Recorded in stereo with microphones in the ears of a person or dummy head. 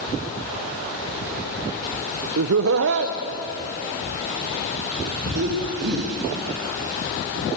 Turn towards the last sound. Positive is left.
turn(degrees=-70)  # may be behind; listen again after turning